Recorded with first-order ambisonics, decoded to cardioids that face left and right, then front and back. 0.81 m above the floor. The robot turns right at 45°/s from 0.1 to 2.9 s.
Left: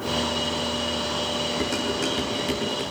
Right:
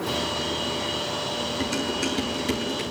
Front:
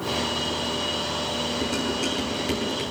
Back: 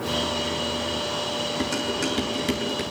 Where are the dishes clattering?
140° left, 8 m; by 2.8 s 170° right, 8 m.